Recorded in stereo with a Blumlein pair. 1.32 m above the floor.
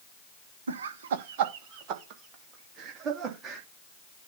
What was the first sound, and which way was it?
Laughter, 70° right.